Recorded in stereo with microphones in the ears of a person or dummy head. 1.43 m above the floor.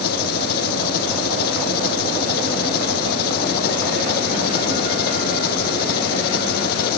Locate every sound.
0.0 s an engine running: 60° left (ahead or behind)